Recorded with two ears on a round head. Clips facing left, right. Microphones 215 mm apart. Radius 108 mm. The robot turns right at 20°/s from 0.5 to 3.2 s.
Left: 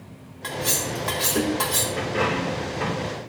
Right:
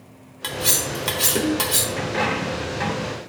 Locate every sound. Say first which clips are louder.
0.4 s cutlery clinking: right 1 dB; 50° right (ahead or behind), 1.2 m; by 1.9 s 30° right (ahead or behind), 1.2 m
2.0 s a dropped coin: left 1 dB; 60° right (ahead or behind), 4 m; by 3.2 s 70° right (ahead or behind), 4 m